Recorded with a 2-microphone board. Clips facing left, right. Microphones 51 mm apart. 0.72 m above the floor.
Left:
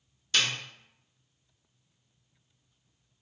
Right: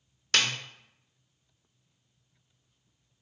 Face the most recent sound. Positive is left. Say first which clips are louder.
# right 1 dB
turn(degrees=-60)  # may be behind; listen again after turning